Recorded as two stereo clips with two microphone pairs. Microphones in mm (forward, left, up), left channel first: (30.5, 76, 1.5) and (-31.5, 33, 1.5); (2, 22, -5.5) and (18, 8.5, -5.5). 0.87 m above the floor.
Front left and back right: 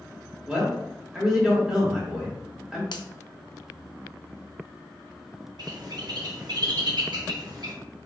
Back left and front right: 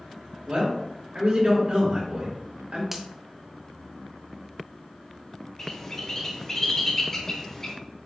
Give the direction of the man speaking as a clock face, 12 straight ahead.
2 o'clock.